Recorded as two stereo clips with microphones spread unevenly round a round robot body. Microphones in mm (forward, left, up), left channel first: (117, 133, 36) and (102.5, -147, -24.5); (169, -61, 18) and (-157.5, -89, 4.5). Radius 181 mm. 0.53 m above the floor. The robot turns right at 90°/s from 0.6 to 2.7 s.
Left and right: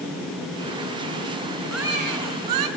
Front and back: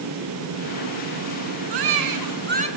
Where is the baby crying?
170° left, 4 m; by 2.7 s 100° right, 4 m.